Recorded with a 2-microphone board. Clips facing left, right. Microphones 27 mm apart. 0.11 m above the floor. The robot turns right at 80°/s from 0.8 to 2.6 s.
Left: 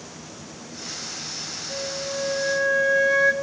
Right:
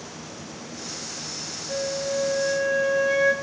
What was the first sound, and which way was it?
A flute, 55° right.